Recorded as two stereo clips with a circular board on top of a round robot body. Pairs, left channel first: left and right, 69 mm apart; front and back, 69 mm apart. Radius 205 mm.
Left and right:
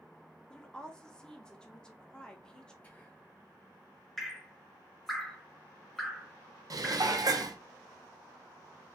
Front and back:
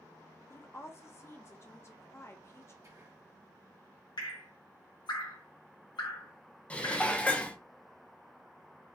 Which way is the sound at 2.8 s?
155° left.